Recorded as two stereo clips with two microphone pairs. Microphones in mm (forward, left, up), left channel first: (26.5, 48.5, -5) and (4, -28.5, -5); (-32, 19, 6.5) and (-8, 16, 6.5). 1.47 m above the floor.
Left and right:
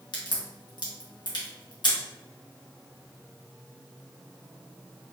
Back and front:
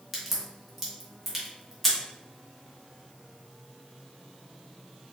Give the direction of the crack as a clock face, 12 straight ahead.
9 o'clock.